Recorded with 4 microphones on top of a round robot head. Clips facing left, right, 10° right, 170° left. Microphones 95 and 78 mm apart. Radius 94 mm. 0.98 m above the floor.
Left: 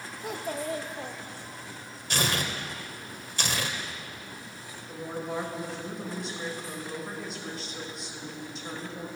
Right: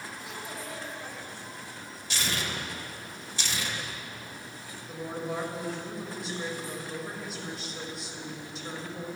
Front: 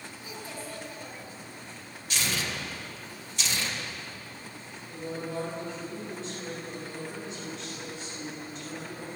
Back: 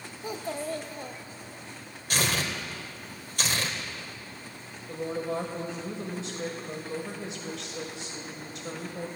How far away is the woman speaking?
About 5.5 m.